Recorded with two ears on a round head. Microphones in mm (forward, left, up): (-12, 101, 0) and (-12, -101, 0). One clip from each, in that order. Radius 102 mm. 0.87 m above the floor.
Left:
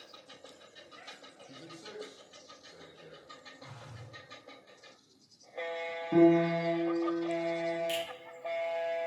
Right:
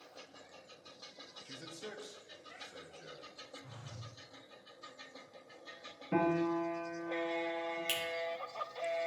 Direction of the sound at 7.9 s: 80° right.